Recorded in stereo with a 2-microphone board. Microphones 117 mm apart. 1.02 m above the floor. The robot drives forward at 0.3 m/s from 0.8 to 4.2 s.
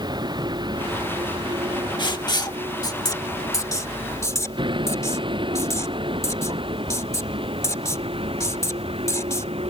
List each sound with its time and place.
0.0 s a vehicle: 40° right (ahead or behind); by 9.7 s 55° right (ahead or behind)
2.0 s writing: 40° left (ahead or behind); by 9.5 s 25° left (ahead or behind)